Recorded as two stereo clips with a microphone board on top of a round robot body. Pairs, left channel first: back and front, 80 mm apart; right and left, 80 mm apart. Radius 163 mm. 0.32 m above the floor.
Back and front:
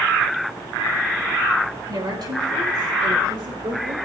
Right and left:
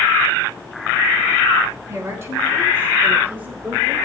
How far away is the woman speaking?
About 3.5 m.